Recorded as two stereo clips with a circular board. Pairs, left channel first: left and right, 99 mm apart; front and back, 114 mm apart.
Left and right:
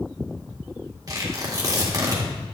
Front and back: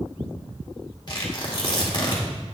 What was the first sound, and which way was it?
Tearing paper, 45° right.